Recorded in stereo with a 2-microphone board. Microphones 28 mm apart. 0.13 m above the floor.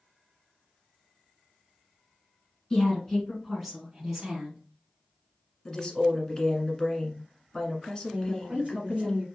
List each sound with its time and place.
2.7 s a woman speaking: 20° left (ahead or behind), 1.4 m; by 4.6 s 20° right (ahead or behind), 1.5 m
5.7 s a woman speaking: 20° left (ahead or behind), 1.1 m
8.1 s a woman speaking: 35° right (ahead or behind), 1.9 m